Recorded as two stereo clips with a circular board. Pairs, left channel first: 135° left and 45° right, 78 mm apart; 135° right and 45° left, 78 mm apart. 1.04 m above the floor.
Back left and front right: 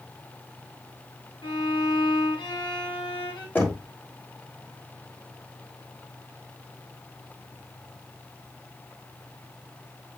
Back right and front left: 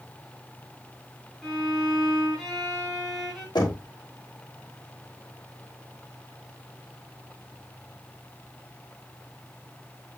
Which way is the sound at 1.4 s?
135° left.